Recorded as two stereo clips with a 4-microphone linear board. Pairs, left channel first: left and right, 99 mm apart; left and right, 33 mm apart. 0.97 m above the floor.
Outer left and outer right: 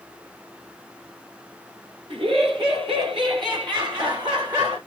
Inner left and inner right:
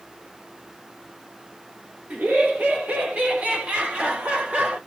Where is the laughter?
60° right (ahead or behind), 3 m; by 4.8 s 45° right (ahead or behind), 4 m.